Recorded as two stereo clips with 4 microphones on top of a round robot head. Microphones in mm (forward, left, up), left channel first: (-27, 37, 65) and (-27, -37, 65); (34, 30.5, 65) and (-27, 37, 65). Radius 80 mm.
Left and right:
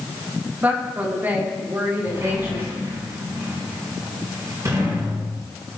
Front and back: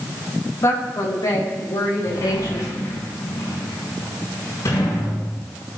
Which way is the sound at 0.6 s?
30° right.